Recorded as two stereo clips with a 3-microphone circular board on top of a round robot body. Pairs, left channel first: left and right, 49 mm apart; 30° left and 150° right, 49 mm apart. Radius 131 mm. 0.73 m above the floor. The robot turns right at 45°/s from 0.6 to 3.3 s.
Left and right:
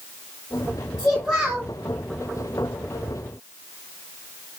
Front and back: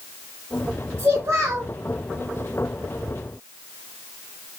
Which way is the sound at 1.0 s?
165° left.